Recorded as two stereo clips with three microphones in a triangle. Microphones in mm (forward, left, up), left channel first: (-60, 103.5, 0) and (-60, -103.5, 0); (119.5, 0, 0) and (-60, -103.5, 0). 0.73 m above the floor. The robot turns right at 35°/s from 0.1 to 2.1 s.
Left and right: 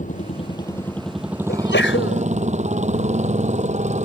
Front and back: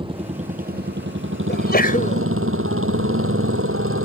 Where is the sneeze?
60° left; by 2.2 s 85° left.